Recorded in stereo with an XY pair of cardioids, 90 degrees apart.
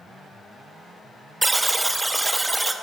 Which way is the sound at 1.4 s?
10° right.